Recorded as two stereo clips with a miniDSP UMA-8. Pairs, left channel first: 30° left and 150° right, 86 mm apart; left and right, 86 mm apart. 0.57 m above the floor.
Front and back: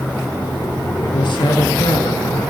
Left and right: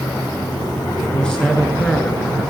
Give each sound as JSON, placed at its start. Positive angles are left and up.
{"t": 1.0, "sound": "a man speaking", "azimuth_deg": 10, "distance_m": 7.5}